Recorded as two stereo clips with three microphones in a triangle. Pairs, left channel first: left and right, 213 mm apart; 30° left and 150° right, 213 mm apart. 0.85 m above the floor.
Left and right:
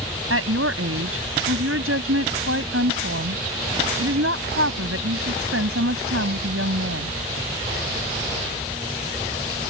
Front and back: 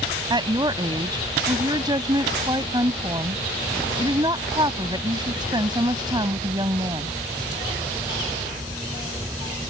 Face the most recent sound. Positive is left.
turn(degrees=-80)